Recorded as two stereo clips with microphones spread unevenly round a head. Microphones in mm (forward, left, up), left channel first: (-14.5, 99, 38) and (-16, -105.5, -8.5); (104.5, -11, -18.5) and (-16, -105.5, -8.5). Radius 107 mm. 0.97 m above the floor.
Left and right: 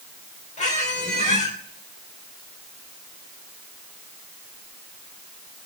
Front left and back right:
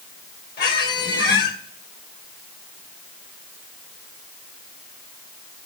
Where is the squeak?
30° left, 3.5 m.